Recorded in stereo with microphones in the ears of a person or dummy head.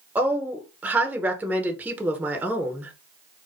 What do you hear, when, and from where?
0.1 s a woman speaking: 10° right (ahead or behind), 0.6 m